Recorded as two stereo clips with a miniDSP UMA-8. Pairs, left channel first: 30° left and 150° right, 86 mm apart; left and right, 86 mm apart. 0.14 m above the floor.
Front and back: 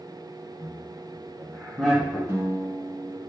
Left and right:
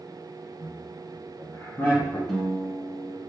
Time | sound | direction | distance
0.6 | laughter | 115° left | 1.3 m
2.3 | a guitar | 175° left | 1.1 m